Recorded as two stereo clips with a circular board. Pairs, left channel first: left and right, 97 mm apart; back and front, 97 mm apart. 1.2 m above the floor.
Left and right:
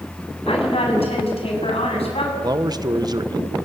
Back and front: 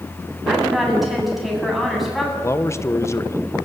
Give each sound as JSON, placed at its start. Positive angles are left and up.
{"t": 0.5, "sound": "a woman speaking", "azimuth_deg": 90, "distance_m": 7.5}
{"t": 2.4, "sound": "a man speaking", "azimuth_deg": -125, "distance_m": 1.0}